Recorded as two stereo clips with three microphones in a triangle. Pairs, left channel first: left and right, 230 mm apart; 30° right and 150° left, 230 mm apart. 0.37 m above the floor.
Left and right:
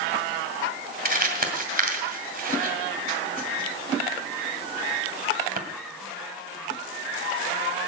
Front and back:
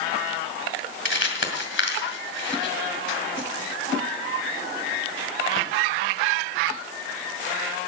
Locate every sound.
1.1 s crumpling: 45° right, 2 m